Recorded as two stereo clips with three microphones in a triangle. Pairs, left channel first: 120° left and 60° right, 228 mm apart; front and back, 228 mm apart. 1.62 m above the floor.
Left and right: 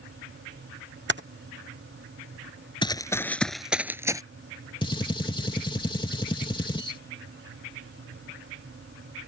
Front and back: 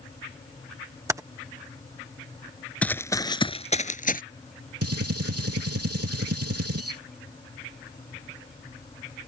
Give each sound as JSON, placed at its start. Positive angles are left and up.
{"t": 1.1, "sound": "typing on a keyboard", "azimuth_deg": -105}
{"t": 2.8, "sound": "running footsteps", "azimuth_deg": 80}
{"t": 4.8, "sound": "a gunshot", "azimuth_deg": -170}